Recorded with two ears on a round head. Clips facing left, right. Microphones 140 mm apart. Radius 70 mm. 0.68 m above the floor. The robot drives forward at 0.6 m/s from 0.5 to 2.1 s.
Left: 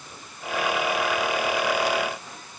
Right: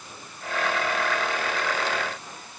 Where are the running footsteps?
I don't hear running footsteps.